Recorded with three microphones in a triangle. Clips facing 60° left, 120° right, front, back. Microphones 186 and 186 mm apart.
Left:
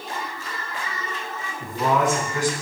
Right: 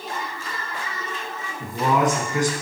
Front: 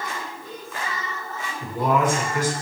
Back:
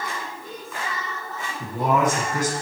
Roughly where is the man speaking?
Behind.